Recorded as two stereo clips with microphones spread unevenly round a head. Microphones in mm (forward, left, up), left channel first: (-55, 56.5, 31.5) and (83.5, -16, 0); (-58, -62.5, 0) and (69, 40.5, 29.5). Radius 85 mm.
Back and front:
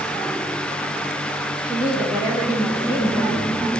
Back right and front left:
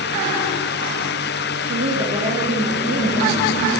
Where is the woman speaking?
50° left, 1.8 m.